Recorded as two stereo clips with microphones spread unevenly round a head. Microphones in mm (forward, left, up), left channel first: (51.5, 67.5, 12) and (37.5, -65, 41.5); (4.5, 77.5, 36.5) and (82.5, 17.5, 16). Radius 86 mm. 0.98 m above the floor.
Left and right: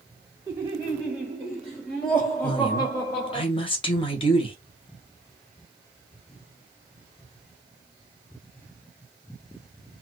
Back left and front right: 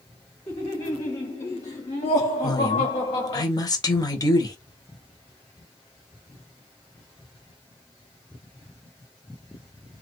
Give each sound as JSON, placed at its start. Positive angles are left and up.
{"t": 0.5, "sound": "laughter", "azimuth_deg": -165, "distance_m": 2.0}
{"t": 2.4, "sound": "a woman speaking", "azimuth_deg": 95, "distance_m": 1.2}